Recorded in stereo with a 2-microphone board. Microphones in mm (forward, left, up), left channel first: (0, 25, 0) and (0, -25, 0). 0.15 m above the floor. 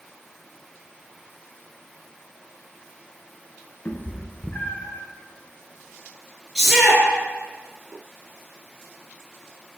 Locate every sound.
3.9 s a cat meowing: 45° left (ahead or behind), 0.9 m
6.5 s a shout: centre (ahead or behind), 3 m